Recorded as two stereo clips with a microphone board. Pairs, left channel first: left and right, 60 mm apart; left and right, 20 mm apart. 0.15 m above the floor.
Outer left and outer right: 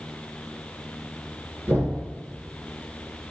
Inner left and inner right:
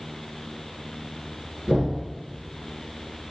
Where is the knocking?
35° right (ahead or behind), 1.8 m.